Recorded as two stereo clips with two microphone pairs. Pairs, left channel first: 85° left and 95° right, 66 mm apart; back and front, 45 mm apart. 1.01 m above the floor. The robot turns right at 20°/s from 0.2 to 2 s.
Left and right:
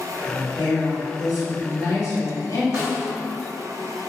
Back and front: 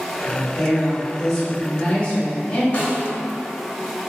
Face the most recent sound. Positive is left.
turn(degrees=-135)